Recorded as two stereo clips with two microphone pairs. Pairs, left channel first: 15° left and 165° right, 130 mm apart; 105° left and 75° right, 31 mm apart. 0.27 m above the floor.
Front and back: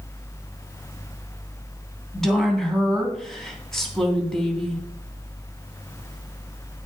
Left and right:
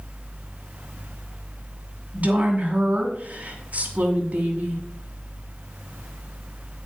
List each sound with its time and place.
2.1 s a woman speaking: 70° right, 2.5 m